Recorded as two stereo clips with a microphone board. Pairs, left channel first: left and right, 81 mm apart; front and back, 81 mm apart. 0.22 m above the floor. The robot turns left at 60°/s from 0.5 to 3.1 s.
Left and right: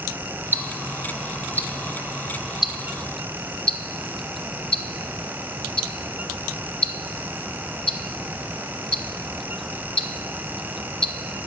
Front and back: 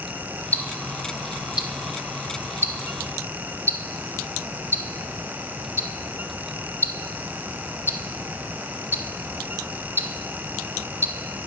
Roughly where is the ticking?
Ahead right.